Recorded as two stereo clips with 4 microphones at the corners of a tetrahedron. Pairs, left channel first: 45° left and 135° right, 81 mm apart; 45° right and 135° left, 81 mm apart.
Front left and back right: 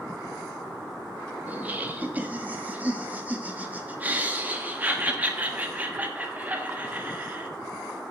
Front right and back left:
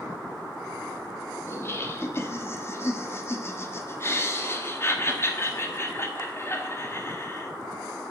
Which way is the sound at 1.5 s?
75° right.